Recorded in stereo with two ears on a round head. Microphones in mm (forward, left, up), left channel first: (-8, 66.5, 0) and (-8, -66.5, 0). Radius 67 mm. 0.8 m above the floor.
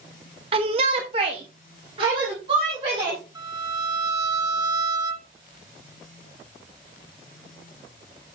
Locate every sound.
0.5 s a shout: 35° right (ahead or behind), 0.7 m; by 3.2 s 30° right (ahead or behind), 3 m
3.4 s a violin: 25° right (ahead or behind), 1.1 m